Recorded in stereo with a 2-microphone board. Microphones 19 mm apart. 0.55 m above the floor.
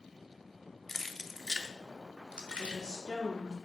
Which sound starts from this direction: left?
Keys jangling, at 0.9 s.